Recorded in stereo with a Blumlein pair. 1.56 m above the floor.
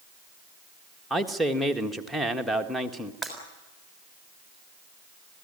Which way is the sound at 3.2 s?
10° left.